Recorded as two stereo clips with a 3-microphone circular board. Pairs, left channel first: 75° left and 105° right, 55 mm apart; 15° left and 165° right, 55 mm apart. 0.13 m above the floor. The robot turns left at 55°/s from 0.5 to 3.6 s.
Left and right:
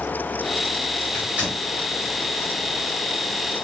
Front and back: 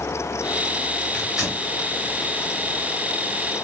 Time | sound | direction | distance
1.1 | tearing paper | 100° right | 1.5 m